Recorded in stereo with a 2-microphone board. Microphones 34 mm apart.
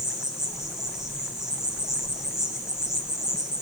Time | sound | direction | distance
0.0 | an insect | 15° right (ahead or behind) | 3 m